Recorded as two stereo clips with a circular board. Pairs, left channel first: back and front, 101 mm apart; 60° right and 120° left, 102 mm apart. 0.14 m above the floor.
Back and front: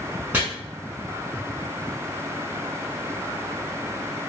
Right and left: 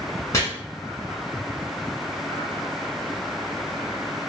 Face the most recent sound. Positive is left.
turn(degrees=-55)